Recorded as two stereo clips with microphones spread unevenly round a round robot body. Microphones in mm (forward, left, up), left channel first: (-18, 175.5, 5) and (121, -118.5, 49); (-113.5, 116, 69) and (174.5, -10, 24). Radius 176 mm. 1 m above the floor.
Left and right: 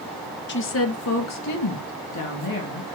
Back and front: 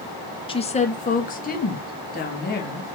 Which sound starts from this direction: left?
A woman speaking, at 0.5 s.